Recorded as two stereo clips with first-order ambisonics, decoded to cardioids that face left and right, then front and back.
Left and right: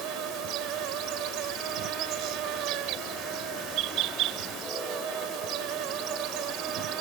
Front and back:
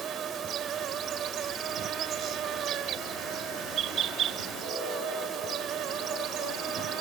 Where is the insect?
125° right.